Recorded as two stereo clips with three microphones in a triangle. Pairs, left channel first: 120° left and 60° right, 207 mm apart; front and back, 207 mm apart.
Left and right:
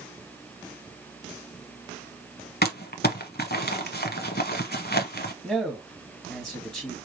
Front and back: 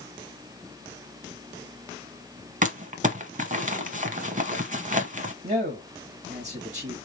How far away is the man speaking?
About 1.2 m.